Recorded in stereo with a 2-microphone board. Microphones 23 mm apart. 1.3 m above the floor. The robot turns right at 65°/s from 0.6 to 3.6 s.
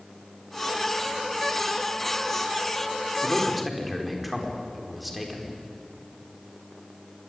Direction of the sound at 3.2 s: 25° left (ahead or behind).